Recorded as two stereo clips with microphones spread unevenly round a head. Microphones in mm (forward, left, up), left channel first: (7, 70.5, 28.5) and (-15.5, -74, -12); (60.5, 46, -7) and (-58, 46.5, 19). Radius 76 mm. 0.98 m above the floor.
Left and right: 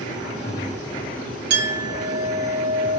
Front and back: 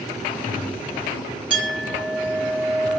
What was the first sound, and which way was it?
A clink, 95° right.